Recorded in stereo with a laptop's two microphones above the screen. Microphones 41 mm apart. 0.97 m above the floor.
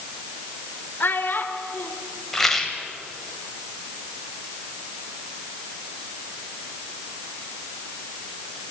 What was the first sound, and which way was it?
A child speaking, 55° left (ahead or behind).